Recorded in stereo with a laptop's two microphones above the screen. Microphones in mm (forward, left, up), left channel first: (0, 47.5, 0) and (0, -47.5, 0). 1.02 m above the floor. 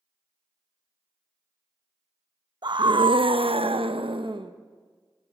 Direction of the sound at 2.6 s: 50° right (ahead or behind).